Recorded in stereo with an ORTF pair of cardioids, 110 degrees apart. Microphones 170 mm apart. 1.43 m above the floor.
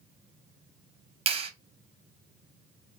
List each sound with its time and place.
1.3 s a clap: 35° right, 0.7 m